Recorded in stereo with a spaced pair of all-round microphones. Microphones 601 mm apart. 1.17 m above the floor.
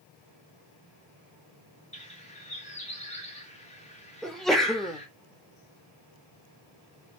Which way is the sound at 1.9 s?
10° left (ahead or behind).